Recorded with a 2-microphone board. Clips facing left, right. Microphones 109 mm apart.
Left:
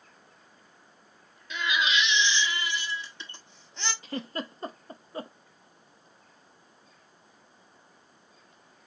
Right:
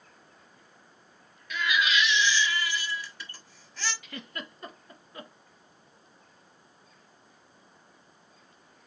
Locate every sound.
1.5 s a baby crying: 25° left (ahead or behind), 1.1 m
4.0 s a giggle: 35° left (ahead or behind), 0.6 m